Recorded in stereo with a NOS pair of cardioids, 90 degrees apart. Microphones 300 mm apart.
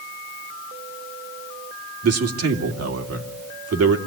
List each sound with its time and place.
2.0 s a man speaking: 55° right, 2.5 m